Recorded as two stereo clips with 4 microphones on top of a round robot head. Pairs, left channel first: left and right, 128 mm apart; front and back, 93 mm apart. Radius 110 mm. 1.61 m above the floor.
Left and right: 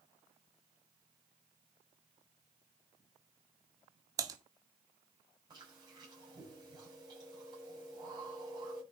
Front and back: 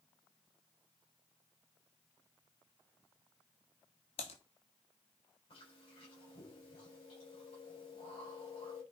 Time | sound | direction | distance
4.2 | typing on a keyboard | 30° right | 0.9 m
5.5 | chewing | 35° right | 7.5 m